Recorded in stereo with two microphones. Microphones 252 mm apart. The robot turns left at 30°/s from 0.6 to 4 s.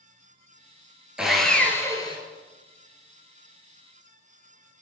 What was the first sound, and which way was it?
Sawing, 5° right (ahead or behind).